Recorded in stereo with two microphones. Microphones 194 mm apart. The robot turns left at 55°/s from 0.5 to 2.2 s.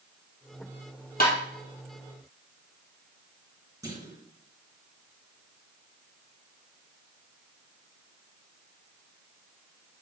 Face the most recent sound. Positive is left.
turn(degrees=-15)  # may be behind; listen again after turning